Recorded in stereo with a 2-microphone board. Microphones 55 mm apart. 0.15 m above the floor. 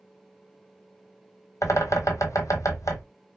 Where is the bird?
75° left (ahead or behind), 0.9 m.